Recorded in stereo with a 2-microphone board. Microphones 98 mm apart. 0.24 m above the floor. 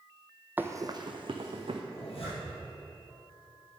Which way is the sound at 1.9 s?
85° left.